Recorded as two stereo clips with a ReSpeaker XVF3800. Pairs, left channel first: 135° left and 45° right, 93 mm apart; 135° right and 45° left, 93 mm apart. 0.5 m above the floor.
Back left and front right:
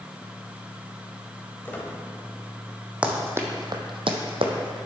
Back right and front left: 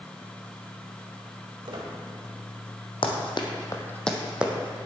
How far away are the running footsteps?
About 1.5 m.